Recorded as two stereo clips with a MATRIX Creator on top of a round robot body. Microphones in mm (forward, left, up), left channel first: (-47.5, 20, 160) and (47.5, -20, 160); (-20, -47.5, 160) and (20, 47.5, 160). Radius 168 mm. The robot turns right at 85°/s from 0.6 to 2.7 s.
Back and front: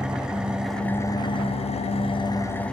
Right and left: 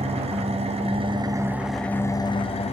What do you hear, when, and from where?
0.0 s an engine running: 60° left, 0.8 m; by 2.7 s 120° right, 0.8 m